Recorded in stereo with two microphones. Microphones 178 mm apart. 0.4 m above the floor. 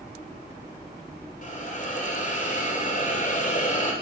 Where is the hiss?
50° left (ahead or behind), 7 m.